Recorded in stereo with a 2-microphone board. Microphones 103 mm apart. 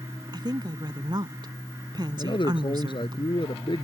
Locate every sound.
0.3 s a woman speaking: 45° right (ahead or behind)
2.2 s a man speaking: 50° left (ahead or behind)